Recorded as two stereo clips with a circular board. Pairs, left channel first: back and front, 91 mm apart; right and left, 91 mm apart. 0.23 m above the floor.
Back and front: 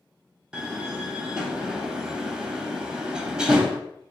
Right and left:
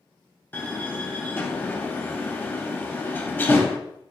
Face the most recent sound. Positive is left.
turn(degrees=-65)